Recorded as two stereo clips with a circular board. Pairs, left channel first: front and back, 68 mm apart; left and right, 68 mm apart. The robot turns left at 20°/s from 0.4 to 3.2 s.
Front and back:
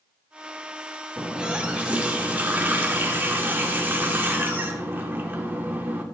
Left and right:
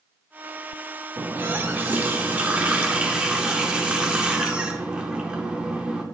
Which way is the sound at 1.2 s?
110° right.